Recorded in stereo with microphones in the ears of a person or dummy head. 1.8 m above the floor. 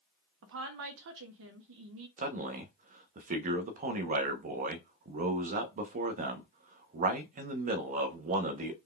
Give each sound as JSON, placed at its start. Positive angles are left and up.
{"t": 0.4, "sound": "a woman speaking", "side_deg": -60, "distance_m": 0.6}
{"t": 2.2, "sound": "a man speaking", "side_deg": -40, "distance_m": 0.6}